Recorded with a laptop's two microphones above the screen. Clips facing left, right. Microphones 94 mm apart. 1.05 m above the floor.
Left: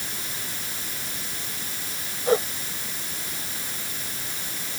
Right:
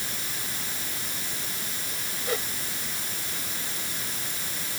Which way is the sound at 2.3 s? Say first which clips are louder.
Left 10 dB; 35° left (ahead or behind).